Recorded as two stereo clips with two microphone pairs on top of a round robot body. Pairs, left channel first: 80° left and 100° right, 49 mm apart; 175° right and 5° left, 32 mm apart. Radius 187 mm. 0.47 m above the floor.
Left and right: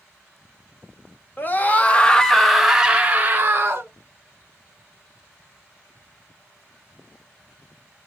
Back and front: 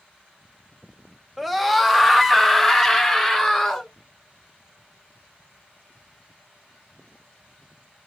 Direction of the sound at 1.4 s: 100° left.